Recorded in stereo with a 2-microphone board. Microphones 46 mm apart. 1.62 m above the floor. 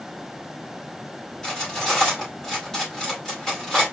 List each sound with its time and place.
1.4 s cutlery clinking: 10° left (ahead or behind), 3 m